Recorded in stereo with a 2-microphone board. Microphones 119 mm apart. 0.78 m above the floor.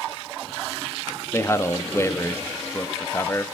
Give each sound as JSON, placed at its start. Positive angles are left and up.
{"t": 1.3, "sound": "a man speaking", "side_deg": 25, "distance_m": 1.3}